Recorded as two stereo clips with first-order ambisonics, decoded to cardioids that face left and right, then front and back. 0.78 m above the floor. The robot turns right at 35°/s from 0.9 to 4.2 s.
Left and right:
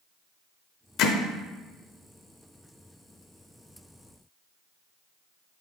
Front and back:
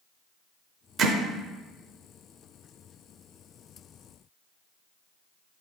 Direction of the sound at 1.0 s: 120° left.